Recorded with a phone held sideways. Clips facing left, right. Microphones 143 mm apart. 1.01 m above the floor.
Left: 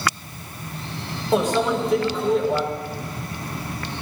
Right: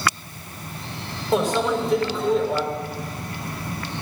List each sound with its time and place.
1.3 s a microwave: centre (ahead or behind), 2.5 m